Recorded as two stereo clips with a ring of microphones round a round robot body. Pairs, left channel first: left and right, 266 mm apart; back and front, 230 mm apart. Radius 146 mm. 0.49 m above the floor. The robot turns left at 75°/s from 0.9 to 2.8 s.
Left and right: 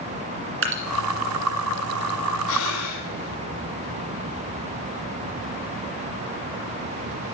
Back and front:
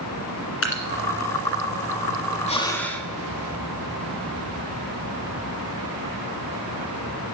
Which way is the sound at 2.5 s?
120° left.